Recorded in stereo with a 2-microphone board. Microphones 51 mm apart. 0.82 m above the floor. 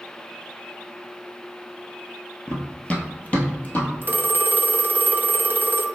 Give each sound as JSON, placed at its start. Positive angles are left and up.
{"t": 2.5, "sound": "running footsteps", "side_deg": 15, "distance_m": 0.8}
{"t": 4.0, "sound": "a phone ringing", "side_deg": -40, "distance_m": 0.5}